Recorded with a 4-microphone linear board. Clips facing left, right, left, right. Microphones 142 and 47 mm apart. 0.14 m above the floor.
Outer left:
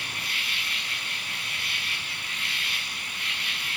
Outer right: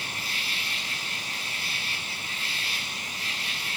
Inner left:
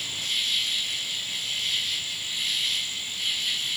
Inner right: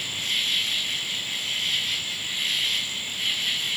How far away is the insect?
About 3.5 m.